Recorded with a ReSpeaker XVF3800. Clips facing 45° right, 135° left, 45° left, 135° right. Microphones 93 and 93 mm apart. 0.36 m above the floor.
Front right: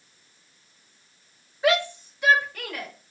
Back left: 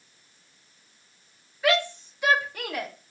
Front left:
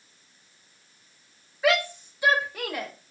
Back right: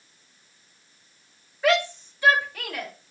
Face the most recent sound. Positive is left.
turn(degrees=90)